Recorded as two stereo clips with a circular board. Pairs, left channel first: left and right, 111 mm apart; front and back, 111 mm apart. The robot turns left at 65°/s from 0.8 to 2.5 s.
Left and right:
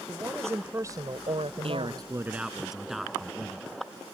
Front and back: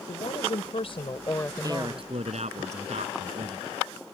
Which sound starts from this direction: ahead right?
A woman speaking, at 0.1 s.